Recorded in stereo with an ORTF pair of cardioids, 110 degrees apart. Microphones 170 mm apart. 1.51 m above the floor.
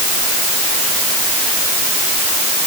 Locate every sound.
Only background noise.